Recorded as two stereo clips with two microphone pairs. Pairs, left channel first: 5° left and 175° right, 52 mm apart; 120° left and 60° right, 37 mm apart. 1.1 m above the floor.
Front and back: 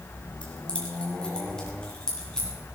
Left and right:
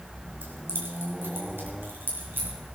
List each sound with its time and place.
0.4 s keys jangling: 60° right, 3.5 m; by 2.5 s 75° right, 6.5 m